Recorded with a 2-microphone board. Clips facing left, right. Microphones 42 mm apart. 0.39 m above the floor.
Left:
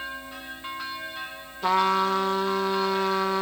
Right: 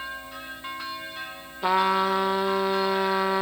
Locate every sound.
1.6 s a trumpet: 15° right (ahead or behind), 0.7 m